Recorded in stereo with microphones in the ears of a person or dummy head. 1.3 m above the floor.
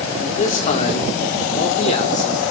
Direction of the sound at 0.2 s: 40° left (ahead or behind).